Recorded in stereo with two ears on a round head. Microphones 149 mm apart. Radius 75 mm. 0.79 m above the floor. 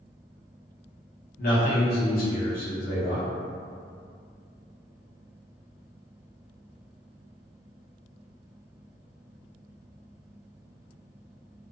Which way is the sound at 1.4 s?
60° left (ahead or behind).